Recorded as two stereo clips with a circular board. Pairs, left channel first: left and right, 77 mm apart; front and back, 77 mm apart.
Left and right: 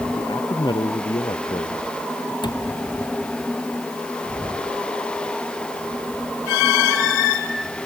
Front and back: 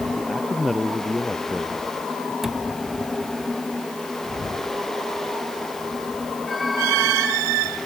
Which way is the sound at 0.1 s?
90° left.